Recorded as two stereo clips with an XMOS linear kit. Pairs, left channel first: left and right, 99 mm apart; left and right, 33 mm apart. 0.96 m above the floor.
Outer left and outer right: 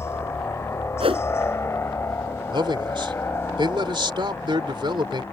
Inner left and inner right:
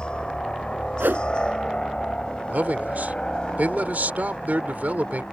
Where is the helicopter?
25° left (ahead or behind).